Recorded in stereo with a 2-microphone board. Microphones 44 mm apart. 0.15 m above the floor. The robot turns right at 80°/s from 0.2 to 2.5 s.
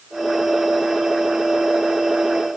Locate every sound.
Only background noise.